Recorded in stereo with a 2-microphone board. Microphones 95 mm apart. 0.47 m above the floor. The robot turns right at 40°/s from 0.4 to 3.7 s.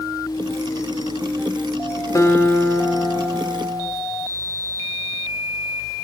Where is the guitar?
130° left, 1.0 m; by 3.9 s 170° right, 1.0 m.